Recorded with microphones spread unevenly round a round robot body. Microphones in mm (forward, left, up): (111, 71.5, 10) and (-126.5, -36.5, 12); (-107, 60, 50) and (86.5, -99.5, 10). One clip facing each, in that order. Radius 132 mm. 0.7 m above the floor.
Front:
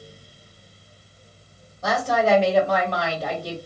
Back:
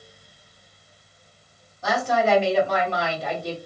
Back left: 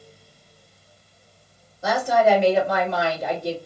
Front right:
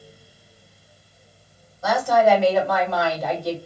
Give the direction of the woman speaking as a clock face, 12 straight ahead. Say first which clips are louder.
Front 1 dB, front right 1 dB; 10 o'clock.